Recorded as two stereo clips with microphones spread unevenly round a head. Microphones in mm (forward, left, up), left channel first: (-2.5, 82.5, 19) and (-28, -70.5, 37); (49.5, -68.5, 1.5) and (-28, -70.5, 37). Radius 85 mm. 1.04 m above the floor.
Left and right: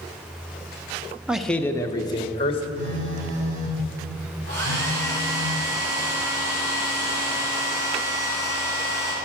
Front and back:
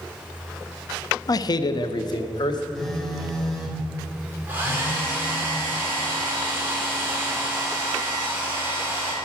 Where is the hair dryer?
115° right, 3.5 m.